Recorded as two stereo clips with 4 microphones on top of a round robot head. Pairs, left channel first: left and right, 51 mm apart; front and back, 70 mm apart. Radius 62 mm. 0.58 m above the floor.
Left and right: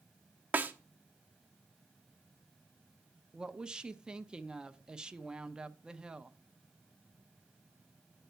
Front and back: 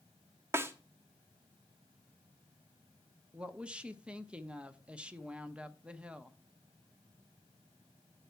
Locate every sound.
0.5 s a snare drum: 140° right, 1.0 m
3.3 s a woman speaking: 135° right, 0.7 m